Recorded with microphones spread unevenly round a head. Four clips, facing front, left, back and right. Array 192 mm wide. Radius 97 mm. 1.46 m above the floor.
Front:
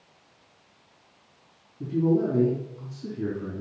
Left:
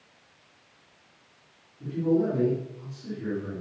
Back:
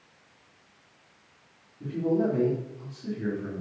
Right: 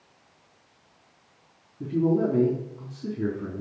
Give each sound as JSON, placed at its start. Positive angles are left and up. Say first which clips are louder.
{"t": 1.8, "sound": "a man speaking", "louder": "right 1 dB, front 3 dB", "azimuth_deg": -55, "distance_m": 4.0}